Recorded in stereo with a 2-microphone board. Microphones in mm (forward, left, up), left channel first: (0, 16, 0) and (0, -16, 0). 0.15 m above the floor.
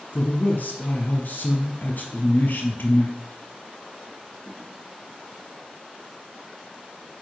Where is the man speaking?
60° left (ahead or behind), 4 m.